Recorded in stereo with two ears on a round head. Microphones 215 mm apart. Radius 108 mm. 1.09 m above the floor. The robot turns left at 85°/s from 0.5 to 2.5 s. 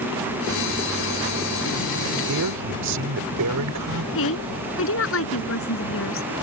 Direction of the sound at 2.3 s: 70° right (ahead or behind).